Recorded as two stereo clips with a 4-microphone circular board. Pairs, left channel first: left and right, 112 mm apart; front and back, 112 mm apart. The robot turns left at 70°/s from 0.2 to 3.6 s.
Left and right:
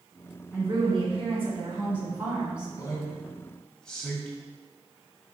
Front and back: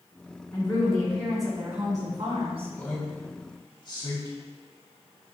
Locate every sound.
0.5 s a woman speaking: 25° right, 1.8 m; by 2.7 s 175° right, 1.8 m
2.8 s a man speaking: 70° left, 1.3 m; by 4.4 s 10° left, 1.3 m